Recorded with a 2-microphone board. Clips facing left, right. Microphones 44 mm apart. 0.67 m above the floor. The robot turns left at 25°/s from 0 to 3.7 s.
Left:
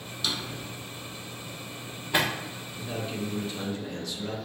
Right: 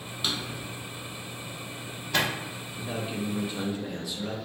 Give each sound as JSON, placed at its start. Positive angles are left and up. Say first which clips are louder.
{"t": 0.2, "sound": "a drawer", "louder": "even", "side_deg": -25, "distance_m": 0.7}
{"t": 2.8, "sound": "a man speaking", "louder": "right 1 dB", "side_deg": -25, "distance_m": 0.8}